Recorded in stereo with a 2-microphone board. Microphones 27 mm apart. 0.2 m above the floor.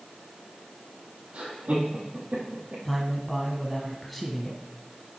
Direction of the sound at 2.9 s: 5° left (ahead or behind).